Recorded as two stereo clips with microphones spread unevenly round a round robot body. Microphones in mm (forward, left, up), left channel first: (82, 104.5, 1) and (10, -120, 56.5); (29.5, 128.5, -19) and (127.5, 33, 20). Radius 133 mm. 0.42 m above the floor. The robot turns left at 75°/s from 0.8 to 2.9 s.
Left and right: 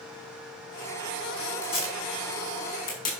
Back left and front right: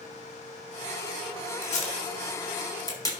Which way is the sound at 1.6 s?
170° left.